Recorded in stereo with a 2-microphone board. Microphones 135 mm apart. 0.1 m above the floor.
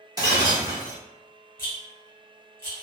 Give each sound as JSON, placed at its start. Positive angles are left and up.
{"t": 0.2, "sound": "breaking glass", "side_deg": -30, "distance_m": 1.5}
{"t": 1.6, "sound": "a rattle", "side_deg": 20, "distance_m": 1.6}